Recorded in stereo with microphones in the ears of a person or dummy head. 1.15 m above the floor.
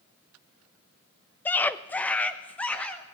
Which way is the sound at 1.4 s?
5° left (ahead or behind).